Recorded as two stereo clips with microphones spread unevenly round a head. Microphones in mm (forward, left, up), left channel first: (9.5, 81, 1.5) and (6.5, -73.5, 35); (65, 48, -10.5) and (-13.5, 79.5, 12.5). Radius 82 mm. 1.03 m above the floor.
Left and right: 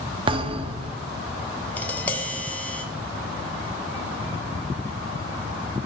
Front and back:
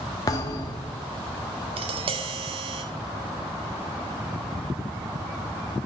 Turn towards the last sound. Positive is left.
turn(degrees=160)